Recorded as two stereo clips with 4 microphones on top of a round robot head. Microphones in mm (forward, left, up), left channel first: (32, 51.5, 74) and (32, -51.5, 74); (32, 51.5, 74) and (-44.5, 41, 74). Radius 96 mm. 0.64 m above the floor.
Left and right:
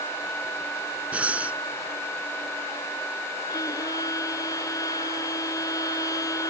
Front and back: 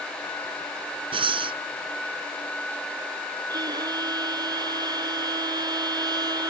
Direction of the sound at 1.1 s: 170° right.